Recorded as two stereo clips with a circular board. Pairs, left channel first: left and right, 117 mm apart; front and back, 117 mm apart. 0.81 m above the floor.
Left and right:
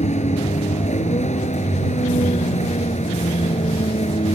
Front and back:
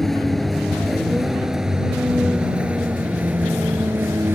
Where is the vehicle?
90° left; by 4.3 s 110° left.